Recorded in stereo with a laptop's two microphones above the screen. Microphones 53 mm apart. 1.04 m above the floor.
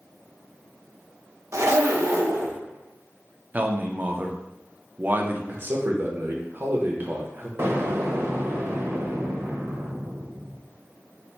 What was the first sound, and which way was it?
A zipper, 60° right (ahead or behind).